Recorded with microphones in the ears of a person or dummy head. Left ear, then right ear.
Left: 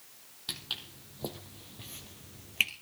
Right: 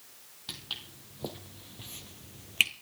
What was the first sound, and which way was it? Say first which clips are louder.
Footsteps: left 2 dB; 5° left (ahead or behind).